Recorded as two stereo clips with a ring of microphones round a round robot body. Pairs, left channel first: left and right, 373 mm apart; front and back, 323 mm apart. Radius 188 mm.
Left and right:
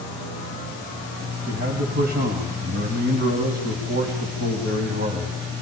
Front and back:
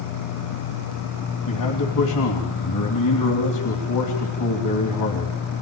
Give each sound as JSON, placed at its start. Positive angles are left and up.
{"t": 1.5, "sound": "a man speaking", "azimuth_deg": -25, "distance_m": 3.0}